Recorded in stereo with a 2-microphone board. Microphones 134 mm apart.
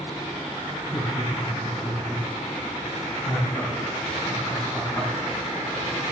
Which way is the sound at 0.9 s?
10° right (ahead or behind).